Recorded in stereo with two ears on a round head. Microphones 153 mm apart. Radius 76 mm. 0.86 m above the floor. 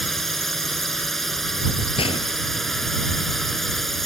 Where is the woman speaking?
I don't hear a woman speaking.